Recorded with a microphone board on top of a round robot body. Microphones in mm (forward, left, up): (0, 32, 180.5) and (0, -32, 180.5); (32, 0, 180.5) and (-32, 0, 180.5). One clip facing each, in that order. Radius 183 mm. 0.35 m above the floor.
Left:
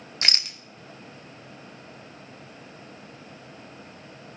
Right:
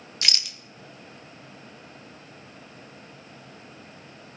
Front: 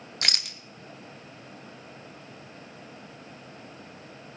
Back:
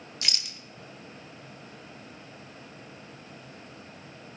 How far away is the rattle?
About 0.7 m.